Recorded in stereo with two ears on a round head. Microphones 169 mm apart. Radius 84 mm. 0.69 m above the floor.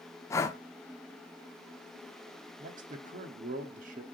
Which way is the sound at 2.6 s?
45° right (ahead or behind).